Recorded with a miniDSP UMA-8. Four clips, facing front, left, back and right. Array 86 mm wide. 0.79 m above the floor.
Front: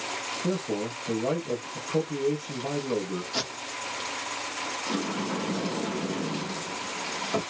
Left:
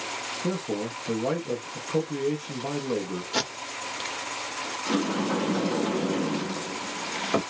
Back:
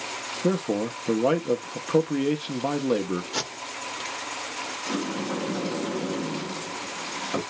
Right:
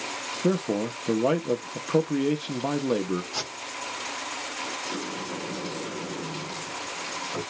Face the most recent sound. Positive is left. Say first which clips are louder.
# left 12 dB, back 2 dB
turn(degrees=95)